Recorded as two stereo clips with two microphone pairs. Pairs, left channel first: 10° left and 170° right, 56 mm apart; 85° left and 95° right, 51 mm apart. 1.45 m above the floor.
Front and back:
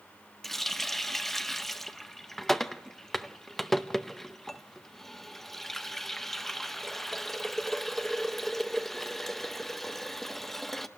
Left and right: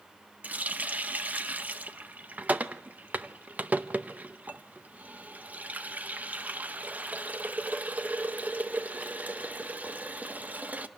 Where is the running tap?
75° right, 0.7 m.